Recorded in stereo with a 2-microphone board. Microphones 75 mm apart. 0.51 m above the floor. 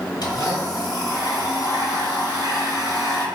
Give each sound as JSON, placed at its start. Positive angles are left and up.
{"t": 0.2, "sound": "a blender", "side_deg": 75, "distance_m": 1.7}